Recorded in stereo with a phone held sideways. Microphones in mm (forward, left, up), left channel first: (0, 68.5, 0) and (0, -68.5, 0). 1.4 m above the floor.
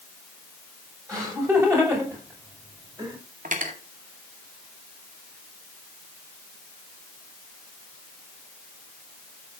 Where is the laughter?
25° right (ahead or behind), 7 m.